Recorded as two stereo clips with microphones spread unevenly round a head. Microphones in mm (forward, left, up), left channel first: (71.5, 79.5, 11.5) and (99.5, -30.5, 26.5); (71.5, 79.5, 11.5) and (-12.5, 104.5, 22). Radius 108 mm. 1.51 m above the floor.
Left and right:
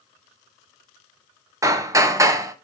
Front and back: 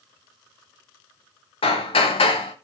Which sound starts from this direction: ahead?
Hammering, at 1.6 s.